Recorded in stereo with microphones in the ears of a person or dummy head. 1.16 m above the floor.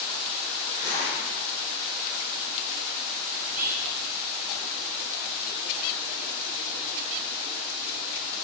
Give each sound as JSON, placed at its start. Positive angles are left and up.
{"t": 0.7, "sound": "a zipper", "side_deg": -30, "distance_m": 1.7}
{"t": 3.4, "sound": "whispering", "side_deg": -80, "distance_m": 1.9}